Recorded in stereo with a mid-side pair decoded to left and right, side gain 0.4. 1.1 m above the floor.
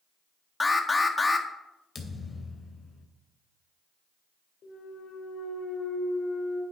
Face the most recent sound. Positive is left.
turn(degrees=60)